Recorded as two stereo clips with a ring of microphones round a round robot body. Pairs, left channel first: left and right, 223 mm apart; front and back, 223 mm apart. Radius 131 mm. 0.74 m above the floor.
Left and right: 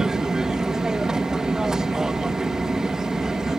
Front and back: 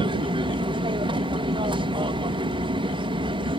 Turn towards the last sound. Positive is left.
turn(degrees=-175)